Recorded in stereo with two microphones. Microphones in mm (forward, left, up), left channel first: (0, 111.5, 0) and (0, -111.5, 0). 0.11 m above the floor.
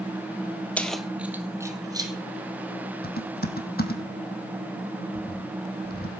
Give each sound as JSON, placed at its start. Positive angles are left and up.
{"t": 0.8, "sound": "keys jangling", "side_deg": 5, "distance_m": 1.6}
{"t": 3.0, "sound": "typing on a keyboard", "side_deg": 45, "distance_m": 2.5}